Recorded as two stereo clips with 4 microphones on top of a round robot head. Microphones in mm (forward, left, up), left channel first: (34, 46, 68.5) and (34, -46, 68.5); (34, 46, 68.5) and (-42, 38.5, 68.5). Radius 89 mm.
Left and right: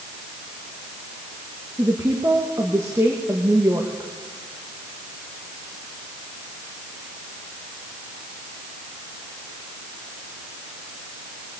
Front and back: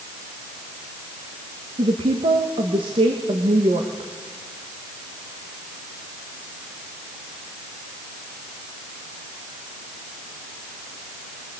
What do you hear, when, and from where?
1.8 s a woman speaking: 160° right, 1.9 m